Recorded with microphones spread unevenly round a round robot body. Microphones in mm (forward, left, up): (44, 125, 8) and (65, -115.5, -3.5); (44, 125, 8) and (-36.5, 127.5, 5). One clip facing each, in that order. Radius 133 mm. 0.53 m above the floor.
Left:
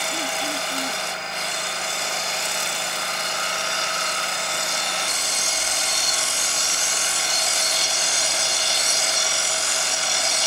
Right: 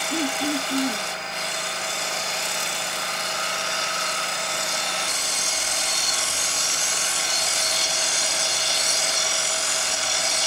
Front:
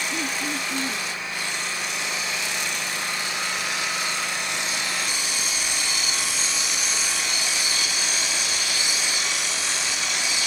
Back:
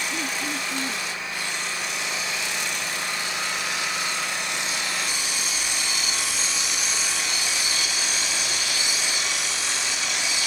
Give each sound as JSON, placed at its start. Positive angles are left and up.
{"t": 0.1, "sound": "throat clearing", "azimuth_deg": -90}